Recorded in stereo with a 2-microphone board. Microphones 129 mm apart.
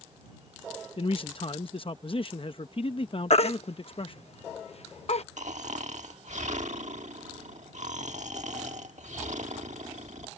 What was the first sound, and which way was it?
A man speaking, 45° left (ahead or behind).